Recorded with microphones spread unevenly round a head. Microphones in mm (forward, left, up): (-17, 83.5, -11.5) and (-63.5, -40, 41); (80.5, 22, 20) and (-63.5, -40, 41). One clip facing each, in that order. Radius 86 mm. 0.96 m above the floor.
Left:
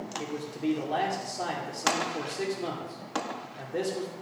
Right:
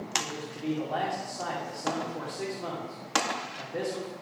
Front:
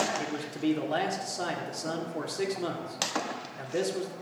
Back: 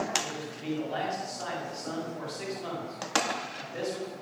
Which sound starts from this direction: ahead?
A man speaking, at 0.2 s.